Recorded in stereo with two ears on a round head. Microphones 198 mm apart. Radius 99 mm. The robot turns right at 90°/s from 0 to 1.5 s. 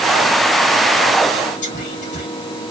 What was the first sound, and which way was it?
Whispering, 40° left (ahead or behind).